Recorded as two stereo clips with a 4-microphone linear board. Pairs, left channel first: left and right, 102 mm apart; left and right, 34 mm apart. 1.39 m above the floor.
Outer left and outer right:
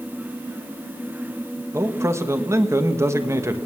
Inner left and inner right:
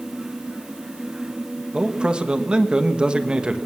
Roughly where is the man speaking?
Right.